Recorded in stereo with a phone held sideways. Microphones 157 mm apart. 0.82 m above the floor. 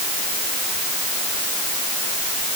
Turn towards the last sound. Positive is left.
No sound to turn to.